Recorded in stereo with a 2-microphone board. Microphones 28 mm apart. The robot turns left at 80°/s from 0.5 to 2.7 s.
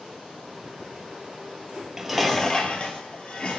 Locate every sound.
1.8 s dishes clattering: 150° right, 2.5 m; by 3.6 s 135° left, 2.5 m